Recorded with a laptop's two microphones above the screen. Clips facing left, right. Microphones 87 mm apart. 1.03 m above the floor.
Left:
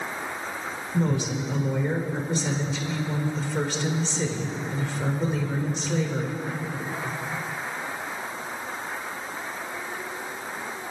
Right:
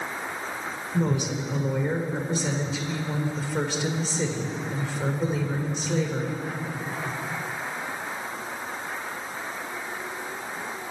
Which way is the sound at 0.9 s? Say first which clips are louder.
Even; 5° right (ahead or behind).